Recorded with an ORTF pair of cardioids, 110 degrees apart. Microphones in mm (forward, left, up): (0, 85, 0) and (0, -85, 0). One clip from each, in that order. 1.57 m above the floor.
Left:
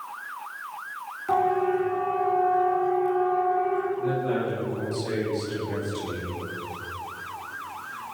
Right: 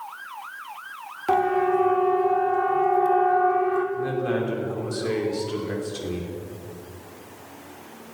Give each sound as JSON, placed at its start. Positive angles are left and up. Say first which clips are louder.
{"t": 1.3, "sound": "a siren", "louder": "right 2 dB", "azimuth_deg": -45, "distance_m": 3.5}
{"t": 4.0, "sound": "a man speaking", "louder": "right 1 dB", "azimuth_deg": -55, "distance_m": 6.0}